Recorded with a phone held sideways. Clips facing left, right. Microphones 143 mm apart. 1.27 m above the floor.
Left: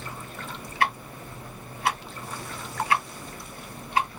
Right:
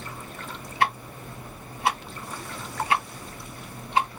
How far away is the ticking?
About 1.9 m.